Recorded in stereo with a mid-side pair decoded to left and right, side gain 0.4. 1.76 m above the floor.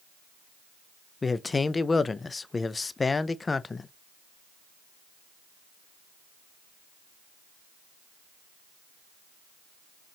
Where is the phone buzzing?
No phone buzzing in this recording.